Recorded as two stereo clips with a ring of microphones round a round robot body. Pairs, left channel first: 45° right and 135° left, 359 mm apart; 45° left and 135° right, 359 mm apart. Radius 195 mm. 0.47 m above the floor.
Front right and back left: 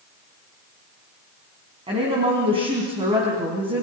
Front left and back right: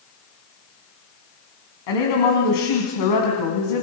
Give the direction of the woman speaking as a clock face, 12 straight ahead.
10 o'clock.